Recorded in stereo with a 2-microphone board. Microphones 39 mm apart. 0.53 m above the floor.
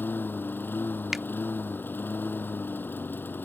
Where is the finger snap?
10° right (ahead or behind).